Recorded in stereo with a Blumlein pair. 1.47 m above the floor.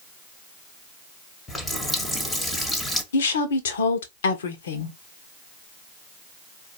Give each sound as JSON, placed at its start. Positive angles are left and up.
{"t": 1.5, "sound": "a running tap", "azimuth_deg": 10, "distance_m": 1.3}
{"t": 3.1, "sound": "a woman speaking", "azimuth_deg": 60, "distance_m": 1.2}